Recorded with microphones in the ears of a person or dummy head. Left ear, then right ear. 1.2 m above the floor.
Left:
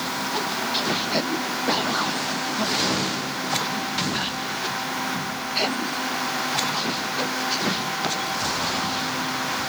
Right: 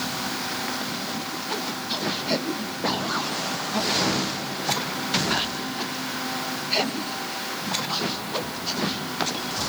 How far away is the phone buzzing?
No phone buzzing in this recording.